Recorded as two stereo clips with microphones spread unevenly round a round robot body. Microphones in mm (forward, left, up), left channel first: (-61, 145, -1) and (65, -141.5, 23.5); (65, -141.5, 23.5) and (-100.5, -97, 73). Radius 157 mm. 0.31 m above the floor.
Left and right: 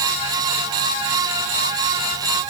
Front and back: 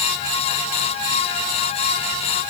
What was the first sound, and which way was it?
Only background noise.